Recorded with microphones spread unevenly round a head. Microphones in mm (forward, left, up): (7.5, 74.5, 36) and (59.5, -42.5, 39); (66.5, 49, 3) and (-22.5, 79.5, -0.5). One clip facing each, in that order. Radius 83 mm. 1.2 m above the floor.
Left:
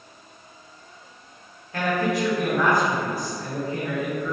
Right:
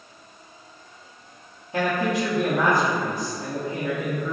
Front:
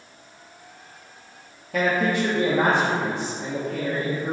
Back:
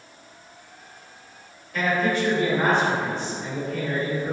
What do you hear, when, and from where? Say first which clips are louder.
1.7 s a man speaking: even, front 1 dB; 5° left, 1.5 m